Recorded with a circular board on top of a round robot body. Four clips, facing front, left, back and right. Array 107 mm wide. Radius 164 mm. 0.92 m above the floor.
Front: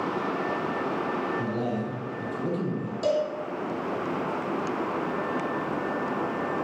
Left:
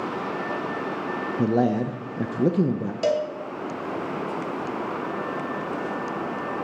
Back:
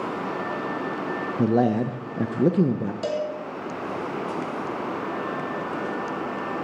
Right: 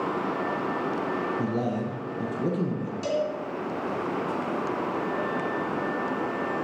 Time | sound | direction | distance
1.4 | a man speaking | 145° left | 0.7 m
3.0 | a cowbell | 100° left | 1.6 m